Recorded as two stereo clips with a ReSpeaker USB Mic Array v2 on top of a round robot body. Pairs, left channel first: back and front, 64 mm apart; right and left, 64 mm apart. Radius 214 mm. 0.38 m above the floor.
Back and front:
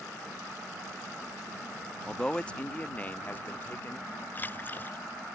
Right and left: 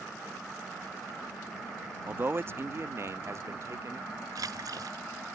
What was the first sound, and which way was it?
A man speaking, 105° left.